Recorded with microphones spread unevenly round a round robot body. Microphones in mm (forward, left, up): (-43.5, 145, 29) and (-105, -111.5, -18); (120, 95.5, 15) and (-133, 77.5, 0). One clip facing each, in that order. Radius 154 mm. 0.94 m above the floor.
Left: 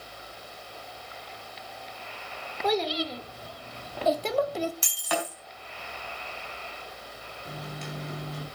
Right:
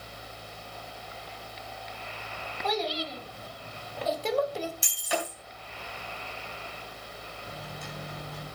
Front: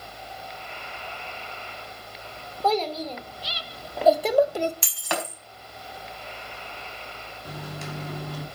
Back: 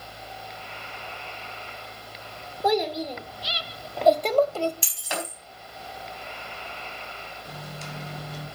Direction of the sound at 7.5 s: 35° left.